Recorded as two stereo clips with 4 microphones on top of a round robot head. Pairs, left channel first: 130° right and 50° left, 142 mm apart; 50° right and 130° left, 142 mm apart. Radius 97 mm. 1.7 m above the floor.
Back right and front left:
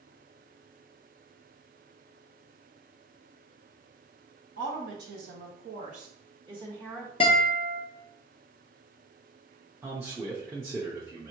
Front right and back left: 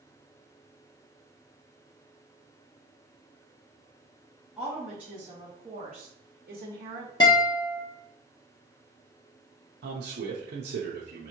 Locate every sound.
4.6 s a woman speaking: 40° left, 1.5 m; by 7.1 s 125° left, 1.3 m
7.2 s a guitar: 95° right, 0.6 m
9.8 s a man speaking: 125° left, 0.7 m